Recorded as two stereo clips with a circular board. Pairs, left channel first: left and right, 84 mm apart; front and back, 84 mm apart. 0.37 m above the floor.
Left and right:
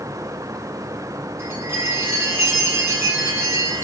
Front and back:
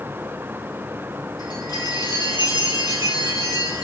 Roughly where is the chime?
Ahead right.